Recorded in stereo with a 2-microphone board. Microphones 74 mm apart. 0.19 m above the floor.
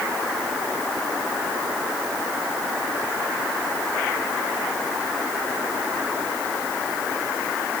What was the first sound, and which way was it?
Only background noise.